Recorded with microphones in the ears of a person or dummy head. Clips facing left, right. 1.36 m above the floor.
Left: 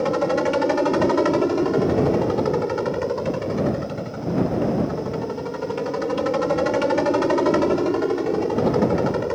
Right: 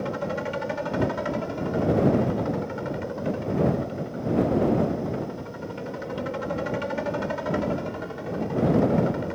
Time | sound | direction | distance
0.0 | a helicopter | 70° left (ahead or behind) | ?